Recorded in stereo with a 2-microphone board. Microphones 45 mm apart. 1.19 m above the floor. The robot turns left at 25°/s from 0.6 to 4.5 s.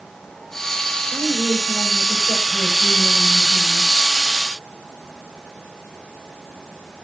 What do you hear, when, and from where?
1.1 s a woman speaking: 50° right, 6 m; by 3.9 s 120° right, 6 m